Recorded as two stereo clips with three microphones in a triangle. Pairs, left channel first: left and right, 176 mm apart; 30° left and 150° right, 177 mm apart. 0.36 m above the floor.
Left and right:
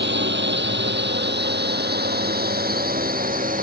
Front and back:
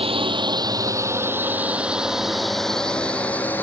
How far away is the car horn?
No car horn in this recording.